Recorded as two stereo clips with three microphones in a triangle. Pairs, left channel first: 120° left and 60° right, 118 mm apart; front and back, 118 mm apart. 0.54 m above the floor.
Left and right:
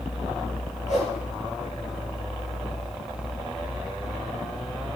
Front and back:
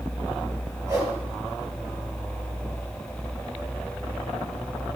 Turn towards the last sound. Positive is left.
turn(degrees=115)